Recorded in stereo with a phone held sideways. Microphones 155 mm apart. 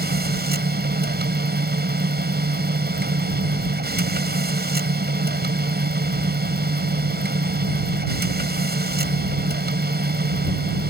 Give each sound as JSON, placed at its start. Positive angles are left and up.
{"t": 0.0, "sound": "a machine running", "side_deg": -85}